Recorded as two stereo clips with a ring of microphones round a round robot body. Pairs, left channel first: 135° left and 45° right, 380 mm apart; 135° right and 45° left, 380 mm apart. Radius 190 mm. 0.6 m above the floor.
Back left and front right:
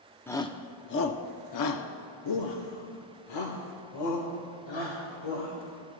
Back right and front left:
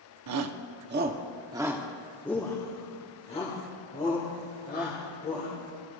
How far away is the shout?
About 0.8 m.